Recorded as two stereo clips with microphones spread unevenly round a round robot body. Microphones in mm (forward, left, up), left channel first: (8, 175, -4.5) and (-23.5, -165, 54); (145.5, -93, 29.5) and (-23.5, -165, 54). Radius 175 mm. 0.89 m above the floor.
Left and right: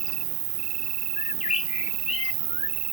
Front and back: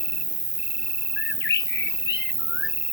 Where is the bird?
10° left.